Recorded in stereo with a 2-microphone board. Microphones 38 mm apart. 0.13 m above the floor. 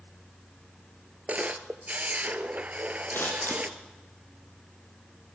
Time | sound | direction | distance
1.3 | a camera shutter | 40° right (ahead or behind) | 1.0 m
3.1 | scissors | 60° left (ahead or behind) | 4.5 m